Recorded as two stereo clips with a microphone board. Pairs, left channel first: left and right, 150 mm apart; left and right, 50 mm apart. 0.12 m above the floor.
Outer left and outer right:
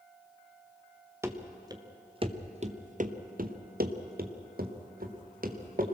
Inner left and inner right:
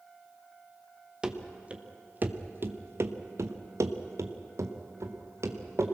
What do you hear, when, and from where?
1.2 s running footsteps: 15° right (ahead or behind), 2 m; by 6.0 s 70° right (ahead or behind), 3 m